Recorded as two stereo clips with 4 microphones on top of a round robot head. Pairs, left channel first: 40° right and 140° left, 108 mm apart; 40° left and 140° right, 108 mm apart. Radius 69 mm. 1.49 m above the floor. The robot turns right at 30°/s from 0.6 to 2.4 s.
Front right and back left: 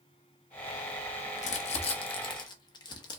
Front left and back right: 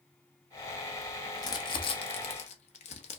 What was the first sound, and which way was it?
Crumpling, 20° right.